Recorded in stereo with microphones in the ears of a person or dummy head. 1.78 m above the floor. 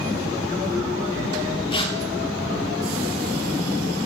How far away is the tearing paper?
About 3 m.